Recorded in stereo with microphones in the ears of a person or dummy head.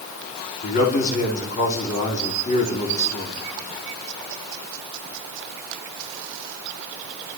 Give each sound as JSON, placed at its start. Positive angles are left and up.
{"t": 0.6, "sound": "a man speaking", "side_deg": 40, "distance_m": 4.5}